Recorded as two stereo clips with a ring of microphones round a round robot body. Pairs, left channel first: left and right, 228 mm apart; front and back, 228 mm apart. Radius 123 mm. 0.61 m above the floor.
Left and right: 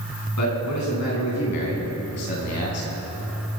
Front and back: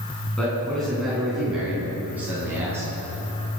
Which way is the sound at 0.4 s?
85° left.